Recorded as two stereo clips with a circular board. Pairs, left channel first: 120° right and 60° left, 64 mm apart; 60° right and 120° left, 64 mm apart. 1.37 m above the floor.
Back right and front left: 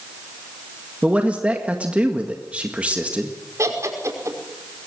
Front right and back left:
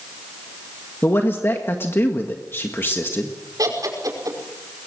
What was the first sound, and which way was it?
A man speaking, 5° right.